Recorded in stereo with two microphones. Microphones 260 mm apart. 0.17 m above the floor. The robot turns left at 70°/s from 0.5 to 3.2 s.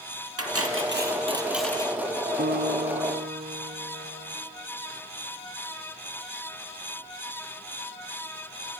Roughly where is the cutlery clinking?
Right.